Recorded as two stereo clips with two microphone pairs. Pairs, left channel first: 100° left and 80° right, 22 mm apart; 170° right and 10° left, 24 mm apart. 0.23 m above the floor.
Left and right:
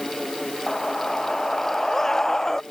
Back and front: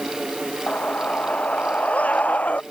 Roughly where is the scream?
Behind.